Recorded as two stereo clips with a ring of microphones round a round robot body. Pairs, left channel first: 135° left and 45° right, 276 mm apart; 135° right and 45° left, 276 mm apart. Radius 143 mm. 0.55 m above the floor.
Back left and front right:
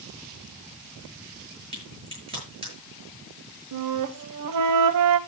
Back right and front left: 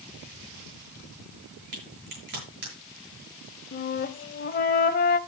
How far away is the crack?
About 7 m.